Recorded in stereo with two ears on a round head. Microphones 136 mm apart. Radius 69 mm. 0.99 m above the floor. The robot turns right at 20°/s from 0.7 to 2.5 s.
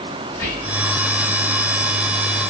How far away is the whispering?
About 1.3 m.